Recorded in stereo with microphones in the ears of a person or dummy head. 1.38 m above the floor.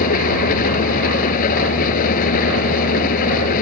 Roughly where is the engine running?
Left.